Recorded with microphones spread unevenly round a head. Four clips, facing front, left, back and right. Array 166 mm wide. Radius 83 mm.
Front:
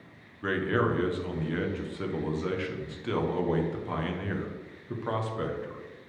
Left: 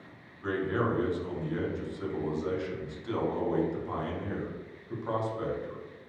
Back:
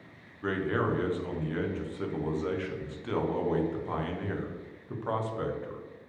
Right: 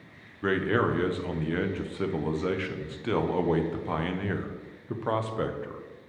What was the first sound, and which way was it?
A man speaking, 70° right.